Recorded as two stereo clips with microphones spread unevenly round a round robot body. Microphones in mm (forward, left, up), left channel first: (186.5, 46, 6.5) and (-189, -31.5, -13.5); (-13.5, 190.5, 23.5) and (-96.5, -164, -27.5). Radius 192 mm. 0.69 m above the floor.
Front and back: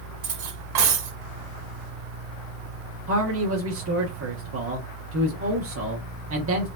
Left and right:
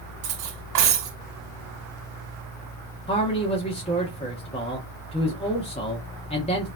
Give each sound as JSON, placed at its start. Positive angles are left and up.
{"t": 0.2, "sound": "cutlery clinking", "azimuth_deg": -125, "distance_m": 1.5}
{"t": 3.1, "sound": "a man speaking", "azimuth_deg": 155, "distance_m": 1.1}